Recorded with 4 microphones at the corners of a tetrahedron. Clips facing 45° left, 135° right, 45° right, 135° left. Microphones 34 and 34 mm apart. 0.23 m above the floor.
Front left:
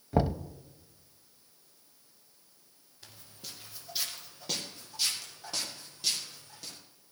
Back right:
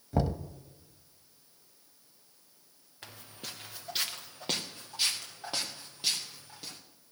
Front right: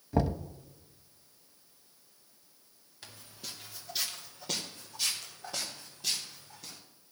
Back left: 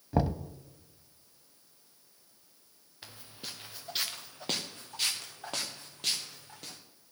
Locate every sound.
0.1 s knocking: 70° left, 0.6 m
3.0 s footsteps: 155° right, 1.4 m; by 6.8 s 160° left, 4.5 m